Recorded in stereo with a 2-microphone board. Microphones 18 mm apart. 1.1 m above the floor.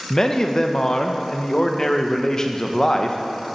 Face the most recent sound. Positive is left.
turn(degrees=30)  # may be behind; listen again after turning